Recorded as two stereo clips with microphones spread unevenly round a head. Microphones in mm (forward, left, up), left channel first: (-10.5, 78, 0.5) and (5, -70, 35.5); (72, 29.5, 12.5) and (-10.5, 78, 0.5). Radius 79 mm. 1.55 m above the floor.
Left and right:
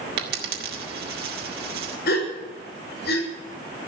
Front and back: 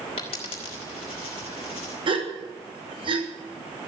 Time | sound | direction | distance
0.2 | a dropped coin | 75° right | 2.5 m
2.1 | a gasp | 120° left | 5.5 m